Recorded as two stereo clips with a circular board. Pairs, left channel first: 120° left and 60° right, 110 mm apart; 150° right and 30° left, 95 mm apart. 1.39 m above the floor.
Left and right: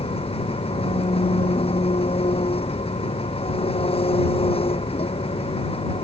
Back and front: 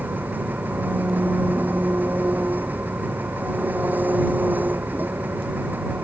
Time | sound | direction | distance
0.0 | an engine running | 100° left | ?